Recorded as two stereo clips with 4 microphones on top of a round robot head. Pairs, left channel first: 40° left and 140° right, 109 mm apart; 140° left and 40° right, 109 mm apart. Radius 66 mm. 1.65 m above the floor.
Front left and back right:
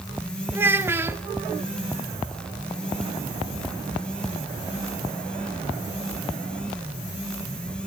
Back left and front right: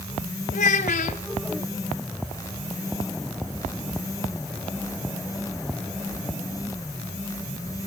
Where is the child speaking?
155° left, 1.7 m.